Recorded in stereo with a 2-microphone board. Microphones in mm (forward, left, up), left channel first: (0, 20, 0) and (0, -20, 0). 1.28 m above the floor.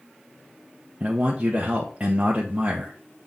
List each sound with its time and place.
1.0 s a man speaking: 35° right (ahead or behind), 1.0 m